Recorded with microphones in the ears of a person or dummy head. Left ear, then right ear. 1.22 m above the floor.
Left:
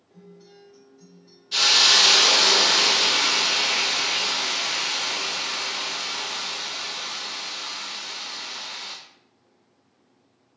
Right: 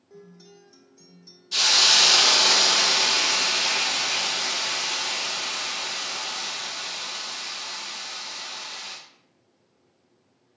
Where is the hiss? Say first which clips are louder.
Left 1 dB; 10° left (ahead or behind), 0.5 m.